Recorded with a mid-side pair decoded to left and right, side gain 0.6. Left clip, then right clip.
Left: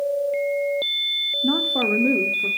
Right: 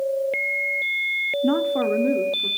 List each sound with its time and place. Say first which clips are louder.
1.4 s a woman speaking: left 1 dB; 15° right, 0.8 m; by 2.5 s 25° left, 1.3 m